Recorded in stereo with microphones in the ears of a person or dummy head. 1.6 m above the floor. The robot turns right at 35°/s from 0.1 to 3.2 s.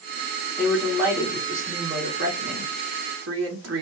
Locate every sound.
0.6 s a woman speaking: straight behind, 2 m; by 3.8 s 85° right, 2 m